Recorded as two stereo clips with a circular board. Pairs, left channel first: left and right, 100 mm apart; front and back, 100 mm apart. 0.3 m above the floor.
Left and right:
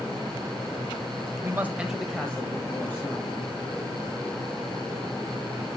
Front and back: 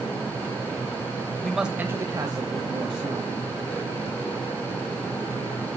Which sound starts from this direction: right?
A man speaking, at 1.4 s.